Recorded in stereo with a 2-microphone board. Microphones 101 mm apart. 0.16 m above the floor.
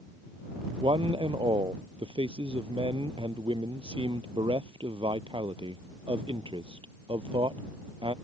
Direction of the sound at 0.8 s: 60° right (ahead or behind).